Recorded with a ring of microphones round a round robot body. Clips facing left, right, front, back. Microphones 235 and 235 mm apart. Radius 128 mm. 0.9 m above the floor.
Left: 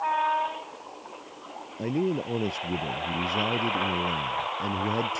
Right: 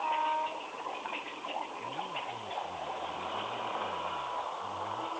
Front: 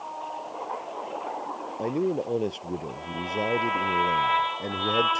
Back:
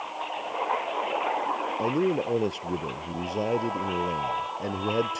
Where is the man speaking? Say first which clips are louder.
Left 17 dB, back 1 dB; 95° left.